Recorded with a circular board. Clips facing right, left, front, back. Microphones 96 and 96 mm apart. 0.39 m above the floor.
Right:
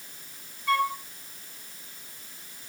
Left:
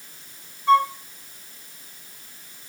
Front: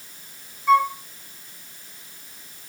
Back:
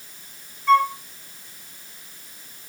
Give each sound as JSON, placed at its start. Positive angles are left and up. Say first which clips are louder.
{"t": 0.7, "sound": "a flute", "louder": "left 8 dB, even", "azimuth_deg": 75, "distance_m": 0.9}